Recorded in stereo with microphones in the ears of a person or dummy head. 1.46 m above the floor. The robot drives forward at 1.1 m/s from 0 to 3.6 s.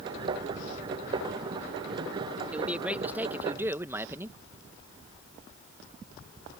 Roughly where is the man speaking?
Centre.